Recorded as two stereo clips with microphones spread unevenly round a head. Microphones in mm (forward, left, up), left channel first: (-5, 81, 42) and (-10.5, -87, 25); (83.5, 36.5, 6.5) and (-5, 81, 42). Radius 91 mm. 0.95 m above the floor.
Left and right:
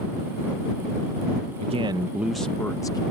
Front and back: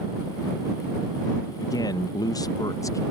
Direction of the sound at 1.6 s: 55° right.